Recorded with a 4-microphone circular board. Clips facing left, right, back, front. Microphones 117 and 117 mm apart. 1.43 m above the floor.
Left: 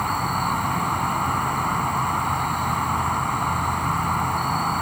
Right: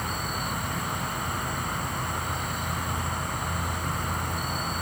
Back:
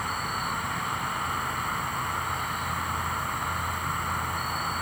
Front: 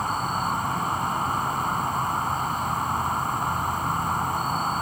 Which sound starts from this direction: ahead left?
An insect, at 0.0 s.